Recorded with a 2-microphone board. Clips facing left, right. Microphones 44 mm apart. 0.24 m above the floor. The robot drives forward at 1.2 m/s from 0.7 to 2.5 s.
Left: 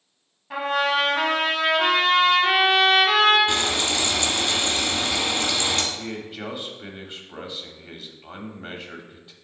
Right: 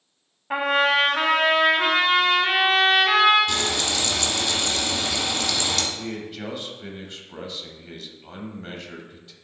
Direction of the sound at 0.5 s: 40° right (ahead or behind).